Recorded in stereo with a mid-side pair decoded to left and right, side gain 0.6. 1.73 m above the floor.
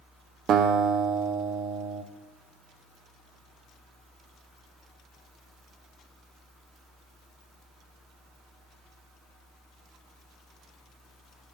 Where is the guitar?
50° right, 0.7 m.